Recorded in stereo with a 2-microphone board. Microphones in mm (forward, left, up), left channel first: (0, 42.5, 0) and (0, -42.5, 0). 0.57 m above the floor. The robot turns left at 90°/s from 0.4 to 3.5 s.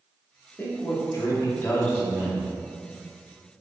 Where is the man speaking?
145° left, 0.8 m; by 2.5 s 30° right, 0.8 m.